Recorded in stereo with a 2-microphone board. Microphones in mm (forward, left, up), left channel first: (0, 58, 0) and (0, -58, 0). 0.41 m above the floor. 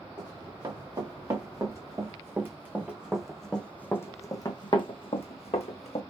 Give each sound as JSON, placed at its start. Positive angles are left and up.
{"t": 0.2, "sound": "running footsteps", "side_deg": -40, "distance_m": 2.5}